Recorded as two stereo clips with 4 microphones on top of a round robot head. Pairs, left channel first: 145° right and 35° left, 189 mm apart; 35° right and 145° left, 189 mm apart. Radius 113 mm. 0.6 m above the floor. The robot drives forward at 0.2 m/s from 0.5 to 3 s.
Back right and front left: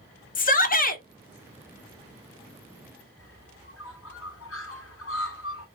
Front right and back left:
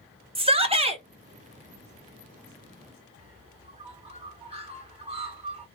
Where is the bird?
155° right, 2.5 m.